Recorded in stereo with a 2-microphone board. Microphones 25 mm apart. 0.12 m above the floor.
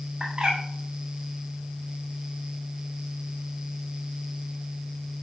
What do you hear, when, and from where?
0.2 s a bird: 30° right (ahead or behind), 5.5 m